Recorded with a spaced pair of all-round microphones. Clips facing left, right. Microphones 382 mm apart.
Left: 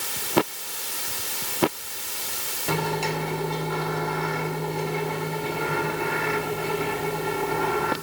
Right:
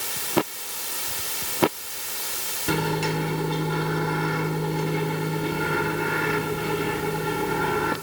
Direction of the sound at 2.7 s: 25° right (ahead or behind).